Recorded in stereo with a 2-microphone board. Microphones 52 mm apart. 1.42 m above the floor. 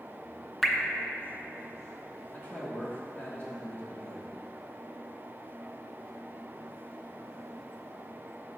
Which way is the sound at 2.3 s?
40° left (ahead or behind).